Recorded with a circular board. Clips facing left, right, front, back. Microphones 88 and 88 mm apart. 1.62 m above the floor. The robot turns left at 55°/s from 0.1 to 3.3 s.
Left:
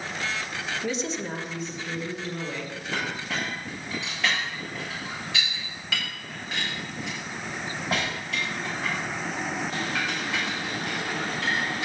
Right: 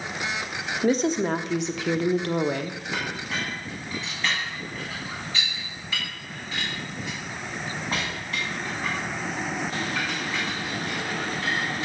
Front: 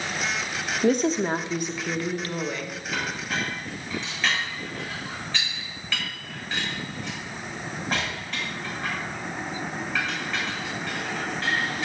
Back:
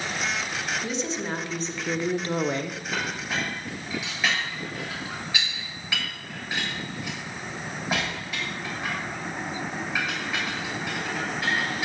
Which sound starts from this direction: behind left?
A clink, at 2.9 s.